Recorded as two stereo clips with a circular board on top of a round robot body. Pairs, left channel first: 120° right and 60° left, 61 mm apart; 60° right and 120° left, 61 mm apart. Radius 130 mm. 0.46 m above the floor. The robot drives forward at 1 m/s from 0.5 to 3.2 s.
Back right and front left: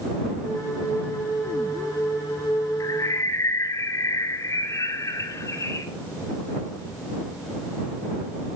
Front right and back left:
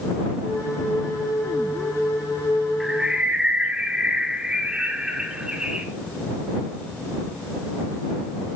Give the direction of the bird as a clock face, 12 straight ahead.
5 o'clock.